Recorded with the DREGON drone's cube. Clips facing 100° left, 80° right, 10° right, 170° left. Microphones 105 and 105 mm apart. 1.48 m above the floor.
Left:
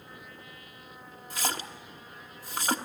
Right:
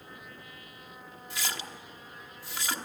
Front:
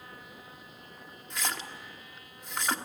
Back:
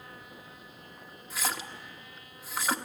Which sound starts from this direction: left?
A splash, at 1.3 s.